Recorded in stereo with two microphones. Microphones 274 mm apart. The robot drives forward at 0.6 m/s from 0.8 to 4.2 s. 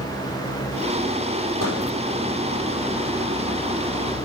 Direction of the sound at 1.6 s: 60° right (ahead or behind).